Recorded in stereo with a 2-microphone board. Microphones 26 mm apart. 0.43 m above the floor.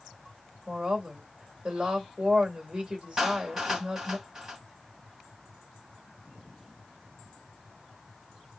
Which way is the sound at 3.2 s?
20° right (ahead or behind).